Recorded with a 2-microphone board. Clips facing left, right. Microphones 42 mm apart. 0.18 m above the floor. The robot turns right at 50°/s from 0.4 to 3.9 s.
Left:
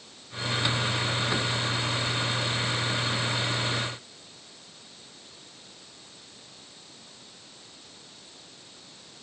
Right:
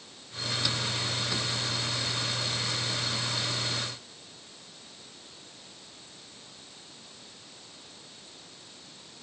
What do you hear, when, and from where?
Only background noise.